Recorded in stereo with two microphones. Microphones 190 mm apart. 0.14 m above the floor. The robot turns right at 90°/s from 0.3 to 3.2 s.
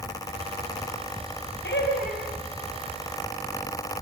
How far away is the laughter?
About 4.5 m.